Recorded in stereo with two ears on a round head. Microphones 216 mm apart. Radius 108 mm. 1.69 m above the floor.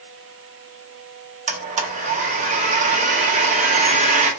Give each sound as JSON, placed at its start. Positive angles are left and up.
{"t": 1.5, "sound": "a blender", "side_deg": -30, "distance_m": 0.6}